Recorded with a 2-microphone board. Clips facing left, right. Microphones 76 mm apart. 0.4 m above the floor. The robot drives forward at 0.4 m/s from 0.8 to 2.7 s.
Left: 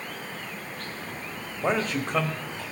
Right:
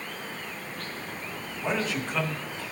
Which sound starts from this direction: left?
A man speaking, at 1.6 s.